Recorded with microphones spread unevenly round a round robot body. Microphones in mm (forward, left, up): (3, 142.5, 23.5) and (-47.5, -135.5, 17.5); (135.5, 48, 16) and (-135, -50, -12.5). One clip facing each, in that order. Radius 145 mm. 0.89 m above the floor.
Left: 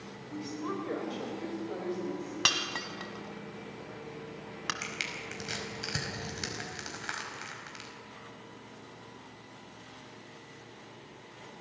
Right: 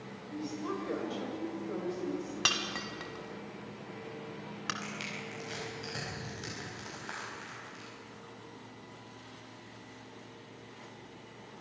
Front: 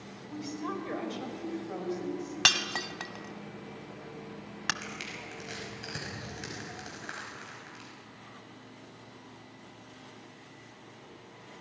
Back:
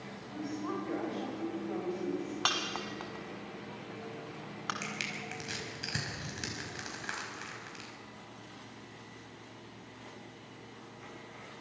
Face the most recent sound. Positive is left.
turn(degrees=130)